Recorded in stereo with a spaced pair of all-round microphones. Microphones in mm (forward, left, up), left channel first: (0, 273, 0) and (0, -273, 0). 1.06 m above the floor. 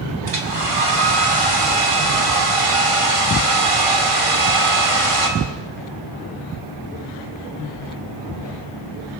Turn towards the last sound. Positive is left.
turn(degrees=-75)  # may be behind; listen again after turning